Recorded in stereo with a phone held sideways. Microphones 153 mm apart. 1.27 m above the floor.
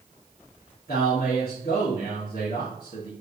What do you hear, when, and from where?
0.9 s a man speaking: 70° left (ahead or behind), 2.5 m